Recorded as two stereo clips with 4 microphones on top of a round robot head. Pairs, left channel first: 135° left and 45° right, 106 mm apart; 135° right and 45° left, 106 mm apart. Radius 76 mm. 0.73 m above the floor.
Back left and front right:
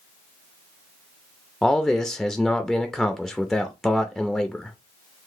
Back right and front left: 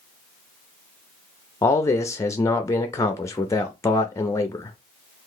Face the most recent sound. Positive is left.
turn(degrees=-140)